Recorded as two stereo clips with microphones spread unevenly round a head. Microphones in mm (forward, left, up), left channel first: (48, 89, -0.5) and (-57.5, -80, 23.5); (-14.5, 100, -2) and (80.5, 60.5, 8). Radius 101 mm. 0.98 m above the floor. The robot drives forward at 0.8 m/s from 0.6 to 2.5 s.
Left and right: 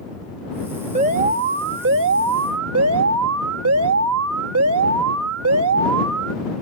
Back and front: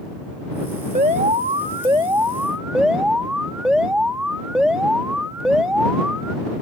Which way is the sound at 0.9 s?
65° right.